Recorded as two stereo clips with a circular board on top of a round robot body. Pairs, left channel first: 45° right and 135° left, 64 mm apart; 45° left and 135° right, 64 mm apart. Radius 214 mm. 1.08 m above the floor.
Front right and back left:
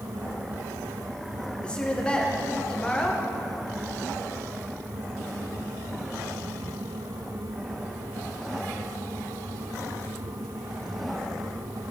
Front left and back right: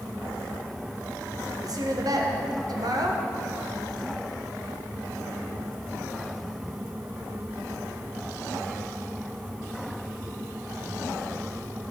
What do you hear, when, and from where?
1.6 s a woman speaking: 120° right, 1.4 m